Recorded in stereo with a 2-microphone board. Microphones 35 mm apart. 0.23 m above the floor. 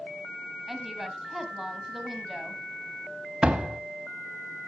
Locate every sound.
0.7 s a woman speaking: 5° right (ahead or behind), 1.4 m
3.4 s a door slam: 25° right (ahead or behind), 0.7 m